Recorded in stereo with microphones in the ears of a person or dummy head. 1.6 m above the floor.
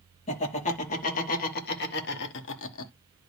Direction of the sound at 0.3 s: 40° left (ahead or behind).